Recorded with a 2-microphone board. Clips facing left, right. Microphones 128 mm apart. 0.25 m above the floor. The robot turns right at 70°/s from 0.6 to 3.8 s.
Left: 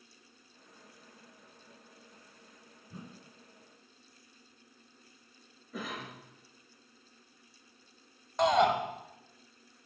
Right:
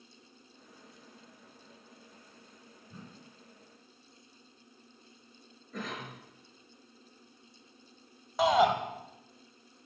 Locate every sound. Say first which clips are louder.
2.9 s a whoosh: left 2 dB; 20° left (ahead or behind), 1.6 m; by 3.3 s 5° right (ahead or behind), 1.6 m
5.7 s a cough: right 1 dB; 5° left (ahead or behind), 5 m
8.4 s a shout: right 1 dB; 5° right (ahead or behind), 1.5 m